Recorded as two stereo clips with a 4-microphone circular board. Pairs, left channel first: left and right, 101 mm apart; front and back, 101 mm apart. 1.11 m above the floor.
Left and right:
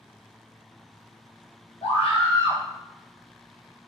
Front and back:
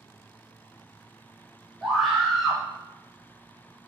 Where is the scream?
95° left, 0.9 m.